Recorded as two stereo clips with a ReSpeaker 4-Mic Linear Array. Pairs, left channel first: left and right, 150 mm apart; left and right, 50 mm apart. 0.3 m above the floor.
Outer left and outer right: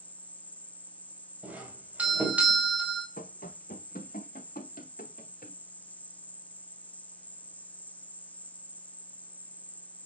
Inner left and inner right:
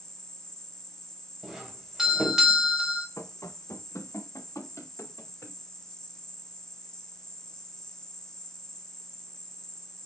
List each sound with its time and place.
0.0 s an insect: 10° left (ahead or behind), 0.9 m
1.4 s a doorbell: 10° right (ahead or behind), 2.5 m
3.2 s running footsteps: 80° left, 1.5 m; by 5.6 s 70° left (ahead or behind), 4 m